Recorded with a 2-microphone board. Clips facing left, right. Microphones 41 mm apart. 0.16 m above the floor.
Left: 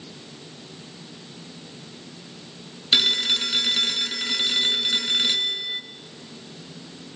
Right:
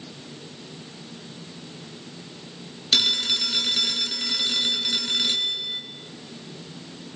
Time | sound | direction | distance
2.9 | a phone ringing | 20° left (ahead or behind) | 1.5 m